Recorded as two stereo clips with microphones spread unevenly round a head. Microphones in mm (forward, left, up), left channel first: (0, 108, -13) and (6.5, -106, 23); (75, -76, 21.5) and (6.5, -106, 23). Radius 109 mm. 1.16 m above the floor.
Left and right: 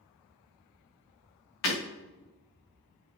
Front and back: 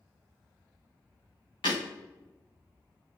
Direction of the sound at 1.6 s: 65° left.